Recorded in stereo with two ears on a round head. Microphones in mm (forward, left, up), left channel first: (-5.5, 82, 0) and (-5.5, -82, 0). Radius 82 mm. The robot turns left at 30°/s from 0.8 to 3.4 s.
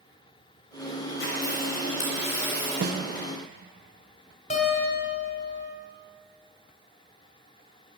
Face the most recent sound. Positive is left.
turn(degrees=40)  # may be behind; listen again after turning